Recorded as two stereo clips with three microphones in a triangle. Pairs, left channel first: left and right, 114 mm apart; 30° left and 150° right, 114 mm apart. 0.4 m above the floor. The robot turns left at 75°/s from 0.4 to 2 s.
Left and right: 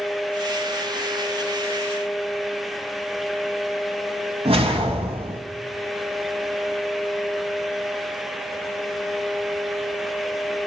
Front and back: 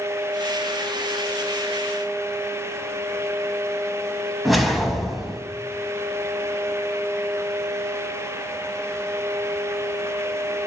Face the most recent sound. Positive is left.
turn(degrees=-60)